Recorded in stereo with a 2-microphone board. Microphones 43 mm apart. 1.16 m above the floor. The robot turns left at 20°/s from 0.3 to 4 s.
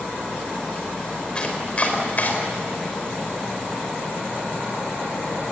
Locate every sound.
1.4 s chopping: 25° left (ahead or behind), 4.5 m; by 2.3 s 45° left (ahead or behind), 4.5 m